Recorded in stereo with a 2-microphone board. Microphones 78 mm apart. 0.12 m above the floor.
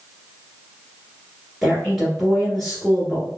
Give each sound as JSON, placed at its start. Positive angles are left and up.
{"t": 1.6, "sound": "a woman speaking", "side_deg": 0, "distance_m": 1.5}